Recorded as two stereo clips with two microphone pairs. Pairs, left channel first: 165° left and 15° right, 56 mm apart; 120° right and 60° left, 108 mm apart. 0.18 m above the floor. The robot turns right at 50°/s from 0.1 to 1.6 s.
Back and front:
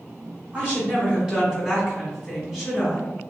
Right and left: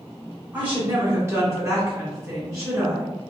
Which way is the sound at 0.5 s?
Straight ahead.